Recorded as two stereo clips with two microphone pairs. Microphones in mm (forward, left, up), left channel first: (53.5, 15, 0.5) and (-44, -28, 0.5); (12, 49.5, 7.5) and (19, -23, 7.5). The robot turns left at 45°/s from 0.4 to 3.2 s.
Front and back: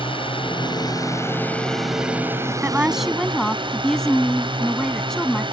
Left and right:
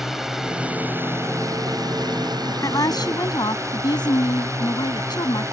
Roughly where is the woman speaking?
Behind left.